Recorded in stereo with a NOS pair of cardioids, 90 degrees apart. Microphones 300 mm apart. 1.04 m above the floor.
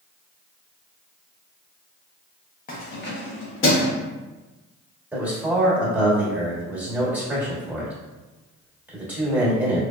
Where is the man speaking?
5° right, 1.6 m.